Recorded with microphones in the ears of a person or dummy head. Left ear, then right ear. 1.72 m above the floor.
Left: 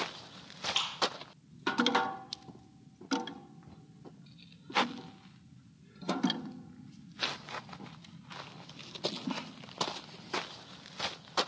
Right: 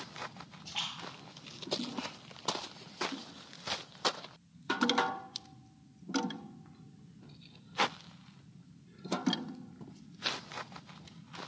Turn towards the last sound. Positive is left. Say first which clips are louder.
# left 7 dB
turn(degrees=80)